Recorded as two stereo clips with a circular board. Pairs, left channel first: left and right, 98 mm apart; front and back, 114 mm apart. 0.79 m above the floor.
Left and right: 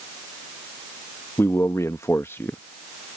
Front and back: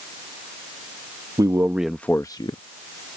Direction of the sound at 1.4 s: 145° left.